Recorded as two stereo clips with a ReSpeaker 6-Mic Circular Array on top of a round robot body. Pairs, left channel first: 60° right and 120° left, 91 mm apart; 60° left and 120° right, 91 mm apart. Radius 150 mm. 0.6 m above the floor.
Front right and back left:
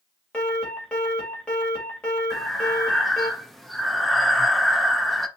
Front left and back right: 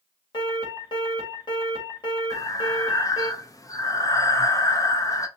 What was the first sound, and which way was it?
An alarm, 20° left.